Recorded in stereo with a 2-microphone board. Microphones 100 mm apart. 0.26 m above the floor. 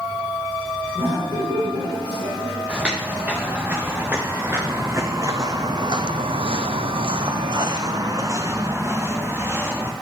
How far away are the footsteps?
About 2 m.